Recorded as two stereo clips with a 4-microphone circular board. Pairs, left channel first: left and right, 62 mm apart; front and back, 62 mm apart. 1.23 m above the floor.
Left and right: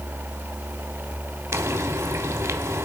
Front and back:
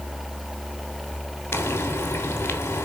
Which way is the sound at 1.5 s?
55° right.